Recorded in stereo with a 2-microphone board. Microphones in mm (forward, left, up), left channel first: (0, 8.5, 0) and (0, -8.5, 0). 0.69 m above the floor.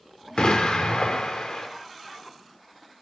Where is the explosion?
65° left (ahead or behind), 1.3 m.